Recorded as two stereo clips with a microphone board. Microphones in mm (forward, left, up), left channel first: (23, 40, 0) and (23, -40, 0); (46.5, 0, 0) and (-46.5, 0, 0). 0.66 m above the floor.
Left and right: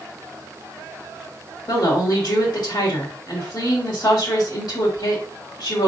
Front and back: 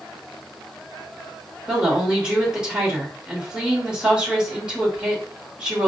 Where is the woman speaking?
100° left, 2.5 m.